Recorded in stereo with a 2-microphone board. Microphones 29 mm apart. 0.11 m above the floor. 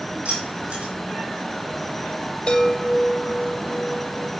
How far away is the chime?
About 2.5 m.